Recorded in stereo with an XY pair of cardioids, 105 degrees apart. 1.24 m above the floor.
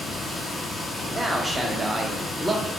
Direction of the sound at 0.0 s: 25° left.